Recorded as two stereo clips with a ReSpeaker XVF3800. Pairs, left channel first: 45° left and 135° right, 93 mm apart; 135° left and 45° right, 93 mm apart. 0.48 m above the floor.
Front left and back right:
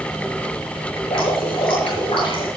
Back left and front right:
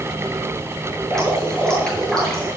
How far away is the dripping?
About 8 m.